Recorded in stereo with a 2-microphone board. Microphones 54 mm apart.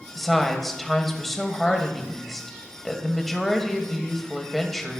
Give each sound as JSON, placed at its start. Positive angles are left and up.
{"t": 0.1, "sound": "a woman speaking", "side_deg": 5, "distance_m": 1.2}